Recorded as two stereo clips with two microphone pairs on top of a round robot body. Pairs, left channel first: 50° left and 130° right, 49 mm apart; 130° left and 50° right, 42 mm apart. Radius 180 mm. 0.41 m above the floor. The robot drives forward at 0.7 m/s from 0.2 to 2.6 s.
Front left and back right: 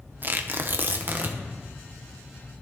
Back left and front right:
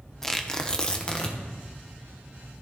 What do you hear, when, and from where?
0.2 s tearing paper: 155° right, 0.9 m; by 1.4 s 170° right, 1.6 m